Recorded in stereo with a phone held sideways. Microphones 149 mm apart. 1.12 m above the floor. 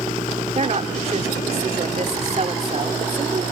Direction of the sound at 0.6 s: 50° right (ahead or behind).